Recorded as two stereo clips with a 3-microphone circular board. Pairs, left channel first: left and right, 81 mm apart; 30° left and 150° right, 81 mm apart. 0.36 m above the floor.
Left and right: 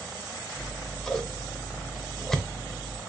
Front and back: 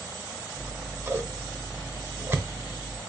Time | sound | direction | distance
0.6 | scissors | 170° left | 0.7 m